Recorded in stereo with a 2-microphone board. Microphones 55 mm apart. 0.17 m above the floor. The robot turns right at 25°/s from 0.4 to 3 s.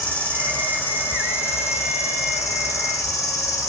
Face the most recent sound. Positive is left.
turn(degrees=95)